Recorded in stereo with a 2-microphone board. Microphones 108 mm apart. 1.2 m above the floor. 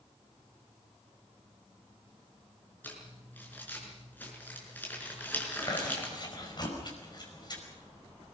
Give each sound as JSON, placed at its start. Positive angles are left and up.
{"t": 2.8, "sound": "crumpling", "side_deg": 15, "distance_m": 5.5}
{"t": 5.6, "sound": "chewing", "side_deg": 40, "distance_m": 5.0}